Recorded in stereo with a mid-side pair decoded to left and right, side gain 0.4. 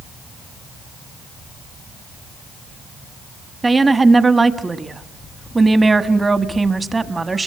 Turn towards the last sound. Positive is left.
turn(degrees=-25)